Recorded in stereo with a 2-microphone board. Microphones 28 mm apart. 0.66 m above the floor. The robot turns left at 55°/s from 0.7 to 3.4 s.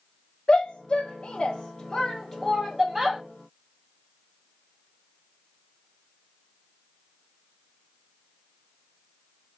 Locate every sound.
0.5 s a shout: 35° left (ahead or behind), 0.6 m; by 3.2 s 15° right (ahead or behind), 0.6 m